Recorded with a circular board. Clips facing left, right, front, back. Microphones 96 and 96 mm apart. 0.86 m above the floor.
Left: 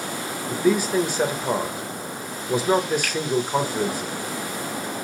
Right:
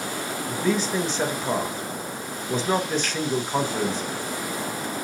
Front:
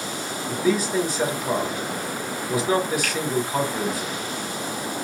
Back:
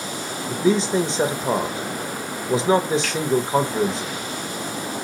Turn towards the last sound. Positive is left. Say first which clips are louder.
# left 2 dB, back 1 dB
turn(degrees=-20)